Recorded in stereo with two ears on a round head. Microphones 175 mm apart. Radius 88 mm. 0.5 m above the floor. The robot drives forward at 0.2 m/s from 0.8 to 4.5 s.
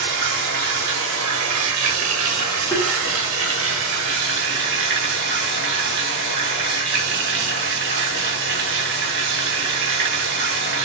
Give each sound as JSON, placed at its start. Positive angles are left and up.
{"t": 0.0, "sound": "running water", "side_deg": -65, "distance_m": 0.8}
{"t": 2.7, "sound": "tapping", "side_deg": 10, "distance_m": 1.1}